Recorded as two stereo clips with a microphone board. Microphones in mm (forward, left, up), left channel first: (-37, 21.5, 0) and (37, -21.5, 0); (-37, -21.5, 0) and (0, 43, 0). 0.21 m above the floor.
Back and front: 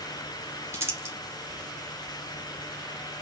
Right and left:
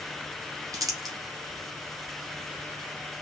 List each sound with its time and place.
0.7 s crumpling: 25° left, 1.9 m